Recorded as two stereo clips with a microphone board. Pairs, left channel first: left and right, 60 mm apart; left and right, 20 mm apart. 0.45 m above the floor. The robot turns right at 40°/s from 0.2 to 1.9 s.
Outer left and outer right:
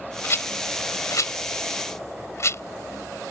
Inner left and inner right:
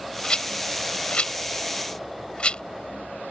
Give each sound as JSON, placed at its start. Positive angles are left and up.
{"t": 0.2, "sound": "a rattle", "side_deg": 45}